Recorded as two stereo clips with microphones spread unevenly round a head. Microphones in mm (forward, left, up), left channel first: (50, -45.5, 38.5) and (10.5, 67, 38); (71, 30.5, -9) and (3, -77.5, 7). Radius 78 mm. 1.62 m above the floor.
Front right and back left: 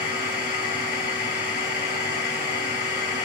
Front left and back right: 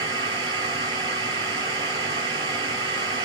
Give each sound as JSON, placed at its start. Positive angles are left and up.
{"t": 0.0, "sound": "a machine running", "azimuth_deg": -100, "distance_m": 2.0}